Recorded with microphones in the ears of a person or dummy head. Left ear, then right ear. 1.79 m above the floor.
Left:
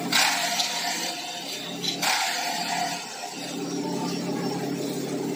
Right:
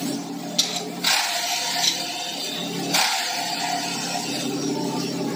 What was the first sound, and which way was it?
Keys jangling, 50° right (ahead or behind).